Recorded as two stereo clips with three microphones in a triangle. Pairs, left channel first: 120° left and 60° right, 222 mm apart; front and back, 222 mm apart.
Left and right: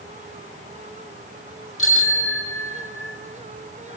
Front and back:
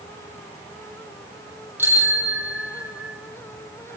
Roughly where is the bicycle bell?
Left.